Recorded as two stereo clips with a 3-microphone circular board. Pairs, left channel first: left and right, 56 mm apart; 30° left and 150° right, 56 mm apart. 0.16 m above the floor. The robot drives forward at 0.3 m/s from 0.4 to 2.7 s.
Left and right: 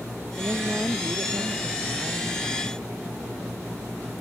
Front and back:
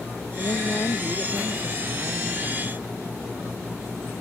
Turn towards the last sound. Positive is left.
turn(degrees=-20)